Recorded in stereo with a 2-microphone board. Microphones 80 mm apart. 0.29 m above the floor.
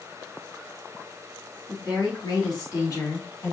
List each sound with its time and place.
1.7 s a woman speaking: 60° left (ahead or behind), 3.5 m; by 3.5 s 40° left (ahead or behind), 2 m